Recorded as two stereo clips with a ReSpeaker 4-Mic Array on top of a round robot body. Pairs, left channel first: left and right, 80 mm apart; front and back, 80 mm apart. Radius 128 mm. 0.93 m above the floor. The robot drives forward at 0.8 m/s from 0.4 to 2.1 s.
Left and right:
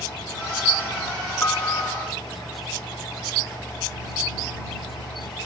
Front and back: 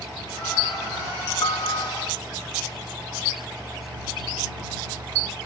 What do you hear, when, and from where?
1.4 s a piano: 30° left; by 1.9 s 35° left